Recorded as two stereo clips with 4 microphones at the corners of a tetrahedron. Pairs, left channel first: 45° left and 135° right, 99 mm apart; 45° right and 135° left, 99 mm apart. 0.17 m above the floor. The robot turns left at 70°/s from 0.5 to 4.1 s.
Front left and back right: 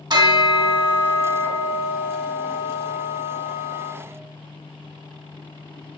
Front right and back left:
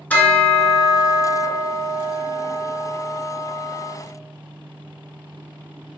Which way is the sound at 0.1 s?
110° right.